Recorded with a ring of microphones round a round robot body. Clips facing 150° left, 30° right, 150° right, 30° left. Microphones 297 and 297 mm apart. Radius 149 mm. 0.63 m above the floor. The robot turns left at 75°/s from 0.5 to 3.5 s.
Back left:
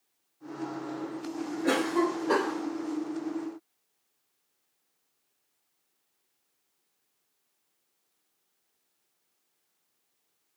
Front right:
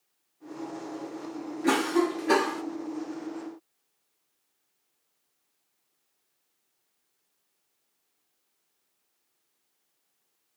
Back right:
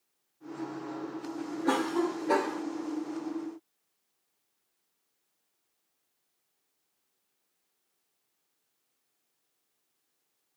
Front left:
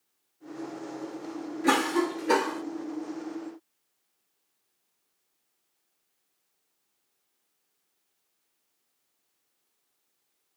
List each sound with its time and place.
1.6 s a cough: 35° left, 0.9 m; by 2.6 s 40° right, 0.9 m